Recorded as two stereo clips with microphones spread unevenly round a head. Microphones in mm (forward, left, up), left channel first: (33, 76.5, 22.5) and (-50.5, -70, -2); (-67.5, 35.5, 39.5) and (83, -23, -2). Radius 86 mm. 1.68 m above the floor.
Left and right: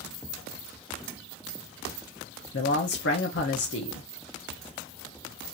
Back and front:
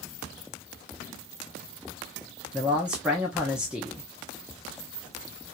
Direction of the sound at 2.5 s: 70° left.